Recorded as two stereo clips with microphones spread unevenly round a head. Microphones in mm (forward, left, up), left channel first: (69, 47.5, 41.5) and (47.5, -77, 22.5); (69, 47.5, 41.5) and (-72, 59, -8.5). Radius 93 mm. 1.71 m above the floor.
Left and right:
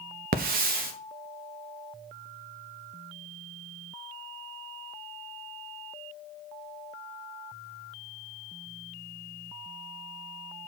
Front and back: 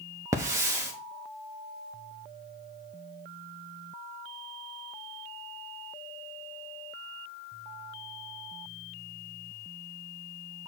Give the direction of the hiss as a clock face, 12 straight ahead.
4 o'clock.